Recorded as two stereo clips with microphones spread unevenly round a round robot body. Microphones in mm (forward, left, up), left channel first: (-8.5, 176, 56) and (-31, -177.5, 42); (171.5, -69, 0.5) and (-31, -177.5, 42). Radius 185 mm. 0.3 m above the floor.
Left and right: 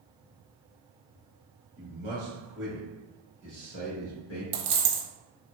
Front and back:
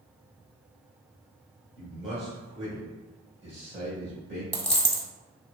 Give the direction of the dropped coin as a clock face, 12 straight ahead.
2 o'clock.